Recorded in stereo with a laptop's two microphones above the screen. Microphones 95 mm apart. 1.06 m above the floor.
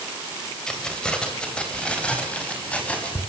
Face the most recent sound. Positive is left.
turn(degrees=15)  # may be behind; listen again after turning